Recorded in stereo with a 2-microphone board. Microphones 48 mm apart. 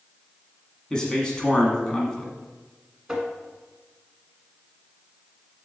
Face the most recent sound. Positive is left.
turn(degrees=-10)  # may be behind; listen again after turning